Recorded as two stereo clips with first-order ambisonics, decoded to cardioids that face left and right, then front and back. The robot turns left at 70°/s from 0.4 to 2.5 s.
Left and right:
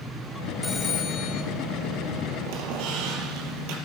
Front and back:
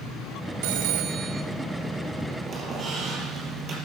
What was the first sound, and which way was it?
A phone ringing, 175° left.